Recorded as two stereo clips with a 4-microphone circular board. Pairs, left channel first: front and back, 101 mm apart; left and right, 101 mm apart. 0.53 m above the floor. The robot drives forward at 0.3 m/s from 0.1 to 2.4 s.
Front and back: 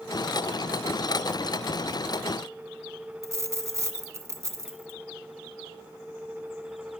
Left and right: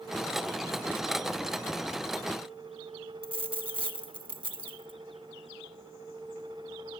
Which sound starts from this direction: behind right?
A dropped coin, at 3.2 s.